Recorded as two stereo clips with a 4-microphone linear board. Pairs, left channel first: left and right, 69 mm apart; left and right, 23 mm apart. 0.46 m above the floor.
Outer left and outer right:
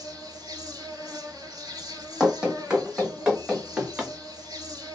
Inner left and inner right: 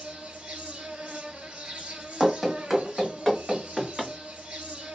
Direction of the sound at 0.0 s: 75° right (ahead or behind).